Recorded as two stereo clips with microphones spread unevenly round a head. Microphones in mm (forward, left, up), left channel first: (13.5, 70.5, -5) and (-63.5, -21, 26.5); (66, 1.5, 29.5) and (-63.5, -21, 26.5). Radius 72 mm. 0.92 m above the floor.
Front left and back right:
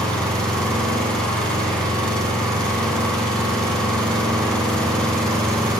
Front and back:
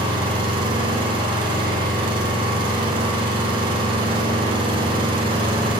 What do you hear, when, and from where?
0.0 s an engine running: 135° left, 7.5 m